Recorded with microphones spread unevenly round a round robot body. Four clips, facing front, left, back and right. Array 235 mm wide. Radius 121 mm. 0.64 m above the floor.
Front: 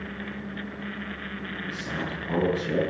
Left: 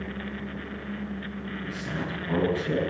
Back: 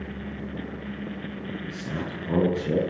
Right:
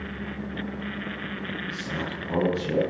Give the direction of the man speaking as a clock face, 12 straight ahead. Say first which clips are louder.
Left 1 dB, front 2 dB; 6 o'clock.